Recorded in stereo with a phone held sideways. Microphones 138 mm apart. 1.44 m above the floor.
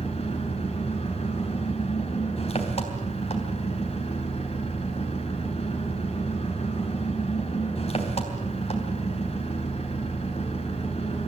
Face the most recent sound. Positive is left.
turn(degrees=45)  # may be behind; listen again after turning